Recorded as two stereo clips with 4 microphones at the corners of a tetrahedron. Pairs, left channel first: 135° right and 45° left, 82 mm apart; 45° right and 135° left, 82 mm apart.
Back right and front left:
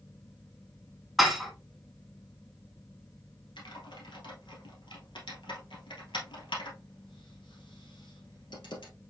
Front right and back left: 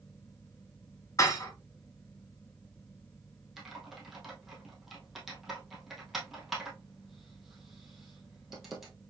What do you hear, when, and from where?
1.2 s dishes clattering: 45° right, 1.2 m
3.6 s typing on a keyboard: 135° right, 2.0 m